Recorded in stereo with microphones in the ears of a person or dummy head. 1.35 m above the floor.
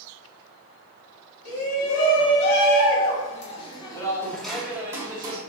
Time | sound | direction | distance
1.4 | a shout | 75° left (ahead or behind) | 1.7 m